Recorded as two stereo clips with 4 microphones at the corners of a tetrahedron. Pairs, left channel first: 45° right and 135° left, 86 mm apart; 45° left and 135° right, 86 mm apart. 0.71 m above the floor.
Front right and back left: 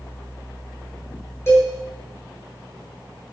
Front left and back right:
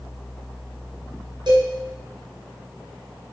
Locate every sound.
1.5 s a cowbell: 105° right, 7 m